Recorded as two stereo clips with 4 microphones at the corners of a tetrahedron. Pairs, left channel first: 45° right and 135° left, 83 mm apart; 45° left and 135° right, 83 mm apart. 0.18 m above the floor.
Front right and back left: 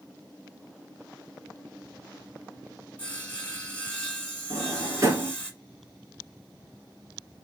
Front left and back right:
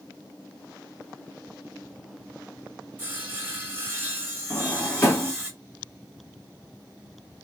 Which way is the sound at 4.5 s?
100° left.